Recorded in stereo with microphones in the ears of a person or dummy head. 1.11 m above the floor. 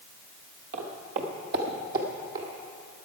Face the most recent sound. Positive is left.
turn(degrees=-45)  # may be behind; listen again after turning